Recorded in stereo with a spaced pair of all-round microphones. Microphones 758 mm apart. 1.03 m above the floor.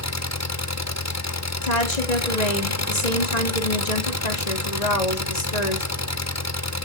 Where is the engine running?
20° left (ahead or behind), 0.8 m.